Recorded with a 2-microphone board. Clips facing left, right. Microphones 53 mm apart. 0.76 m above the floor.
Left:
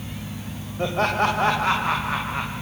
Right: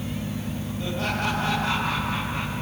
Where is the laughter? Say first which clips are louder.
Left 7 dB; 55° left (ahead or behind), 3 m; by 2.5 s 20° left (ahead or behind), 3 m.